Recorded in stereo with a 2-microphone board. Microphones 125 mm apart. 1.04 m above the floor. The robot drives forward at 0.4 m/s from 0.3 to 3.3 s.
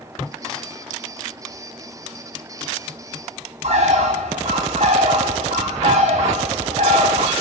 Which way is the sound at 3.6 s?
65° right (ahead or behind).